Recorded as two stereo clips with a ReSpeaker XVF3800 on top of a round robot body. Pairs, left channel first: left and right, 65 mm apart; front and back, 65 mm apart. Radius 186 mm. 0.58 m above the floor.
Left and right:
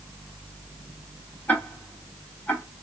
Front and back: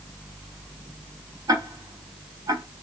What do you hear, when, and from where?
1.5 s ticking: 155° left, 1.3 m